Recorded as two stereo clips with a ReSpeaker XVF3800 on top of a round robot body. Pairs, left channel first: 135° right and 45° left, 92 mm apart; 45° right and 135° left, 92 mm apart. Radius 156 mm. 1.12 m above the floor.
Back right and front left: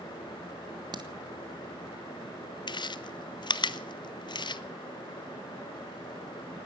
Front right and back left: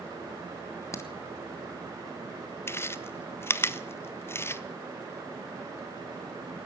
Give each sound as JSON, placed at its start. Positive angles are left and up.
{"t": 0.9, "sound": "a crack", "azimuth_deg": 10, "distance_m": 1.4}
{"t": 2.7, "sound": "chewing", "azimuth_deg": -105, "distance_m": 0.8}